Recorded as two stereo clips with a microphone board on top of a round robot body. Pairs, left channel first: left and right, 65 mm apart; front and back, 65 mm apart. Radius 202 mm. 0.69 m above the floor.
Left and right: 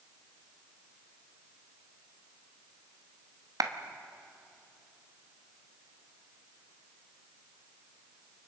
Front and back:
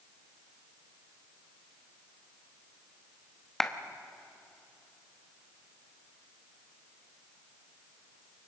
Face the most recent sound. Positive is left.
turn(degrees=-85)